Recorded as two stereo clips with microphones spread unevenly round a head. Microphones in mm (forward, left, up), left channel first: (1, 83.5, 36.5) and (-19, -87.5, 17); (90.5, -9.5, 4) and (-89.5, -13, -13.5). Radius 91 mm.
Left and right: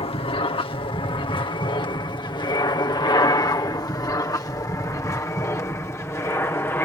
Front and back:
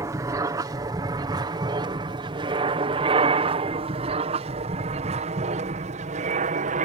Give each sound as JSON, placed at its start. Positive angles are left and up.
{"t": 0.0, "sound": "an aircraft", "azimuth_deg": 125}